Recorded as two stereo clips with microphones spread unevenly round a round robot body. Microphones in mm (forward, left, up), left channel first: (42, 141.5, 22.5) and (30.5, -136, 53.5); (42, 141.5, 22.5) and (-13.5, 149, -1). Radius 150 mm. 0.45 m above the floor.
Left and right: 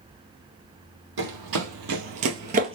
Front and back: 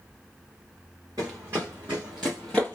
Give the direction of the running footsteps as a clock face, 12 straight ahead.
4 o'clock.